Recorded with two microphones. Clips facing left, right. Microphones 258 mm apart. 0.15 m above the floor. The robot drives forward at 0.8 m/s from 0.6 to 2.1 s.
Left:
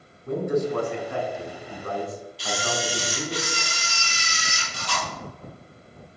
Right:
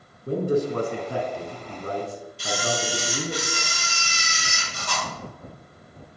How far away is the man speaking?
About 1.3 m.